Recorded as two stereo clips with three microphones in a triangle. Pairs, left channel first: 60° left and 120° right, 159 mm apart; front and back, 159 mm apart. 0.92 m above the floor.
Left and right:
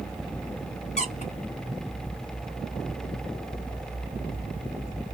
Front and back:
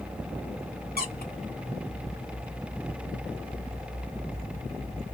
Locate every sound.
1.0 s a squeak: 15° left, 1.3 m